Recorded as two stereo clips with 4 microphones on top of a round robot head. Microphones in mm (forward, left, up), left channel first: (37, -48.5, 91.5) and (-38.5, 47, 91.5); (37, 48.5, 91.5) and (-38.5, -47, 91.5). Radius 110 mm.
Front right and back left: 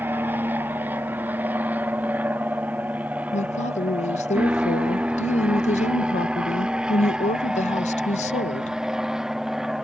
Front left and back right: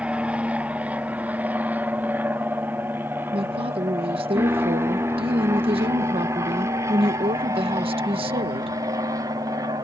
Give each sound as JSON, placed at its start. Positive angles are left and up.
{"t": 0.0, "sound": "an aircraft", "azimuth_deg": 170}
{"t": 3.3, "sound": "a woman speaking", "azimuth_deg": -80}